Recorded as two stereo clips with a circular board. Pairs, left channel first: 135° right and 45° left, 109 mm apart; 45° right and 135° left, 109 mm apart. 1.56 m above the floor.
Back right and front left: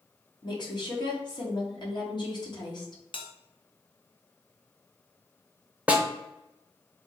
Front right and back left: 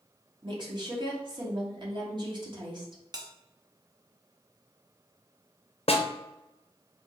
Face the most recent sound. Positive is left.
turn(degrees=-30)